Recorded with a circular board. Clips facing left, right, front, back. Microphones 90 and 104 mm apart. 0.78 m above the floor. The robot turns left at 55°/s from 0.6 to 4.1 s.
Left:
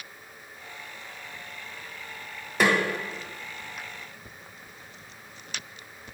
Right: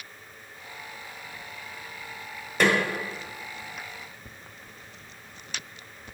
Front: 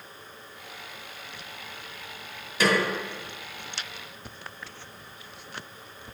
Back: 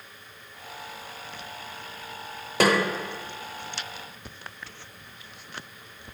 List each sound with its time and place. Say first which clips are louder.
2.6 s a snare drum: even, back 2 dB; 175° left, 1.3 m; by 2.8 s 165° left, 1.3 m